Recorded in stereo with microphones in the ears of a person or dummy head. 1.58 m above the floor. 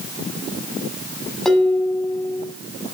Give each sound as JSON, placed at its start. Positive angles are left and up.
{"t": 1.4, "sound": "dishes clattering", "side_deg": 0, "distance_m": 7.5}